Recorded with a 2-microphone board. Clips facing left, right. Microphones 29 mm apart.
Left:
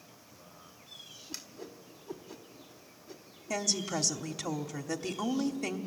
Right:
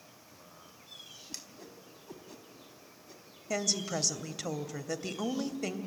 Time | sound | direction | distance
1.3 | a whoosh | 5° left (ahead or behind) | 1.3 m
3.5 | a woman speaking | 5° right (ahead or behind) | 1.0 m